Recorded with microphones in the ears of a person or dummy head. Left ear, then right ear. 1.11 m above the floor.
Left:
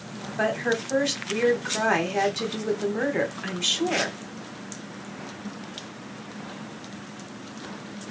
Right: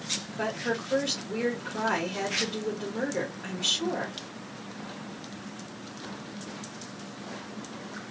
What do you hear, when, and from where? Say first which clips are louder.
0.4 s a woman speaking: left 8 dB; 50° left (ahead or behind), 1.2 m